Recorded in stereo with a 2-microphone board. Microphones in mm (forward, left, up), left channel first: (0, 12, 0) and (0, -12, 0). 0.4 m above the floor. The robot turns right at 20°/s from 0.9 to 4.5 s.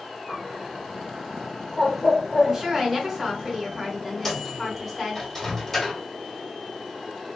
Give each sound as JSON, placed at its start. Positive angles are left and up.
{"t": 0.3, "sound": "a bird", "side_deg": 35, "distance_m": 1.0}
{"t": 2.4, "sound": "a woman speaking", "azimuth_deg": -25, "distance_m": 1.6}
{"t": 4.2, "sound": "a microwave", "side_deg": 15, "distance_m": 1.3}